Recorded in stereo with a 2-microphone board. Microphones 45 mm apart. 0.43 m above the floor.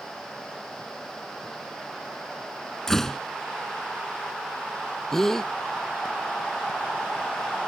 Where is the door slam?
10° left (ahead or behind).